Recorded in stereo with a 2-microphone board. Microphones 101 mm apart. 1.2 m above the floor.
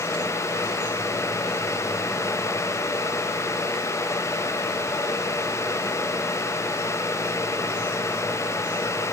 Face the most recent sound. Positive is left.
No sound to turn to.